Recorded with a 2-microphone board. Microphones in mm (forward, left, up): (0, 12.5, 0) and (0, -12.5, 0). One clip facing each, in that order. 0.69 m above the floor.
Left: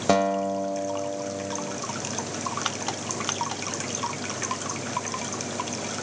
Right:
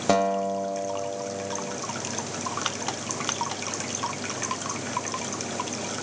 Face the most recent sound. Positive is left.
turn(degrees=5)  # may be behind; listen again after turning